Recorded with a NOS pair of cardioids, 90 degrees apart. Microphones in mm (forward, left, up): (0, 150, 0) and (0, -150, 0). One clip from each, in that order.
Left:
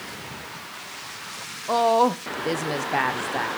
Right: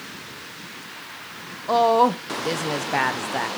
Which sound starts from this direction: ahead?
A woman speaking, at 1.7 s.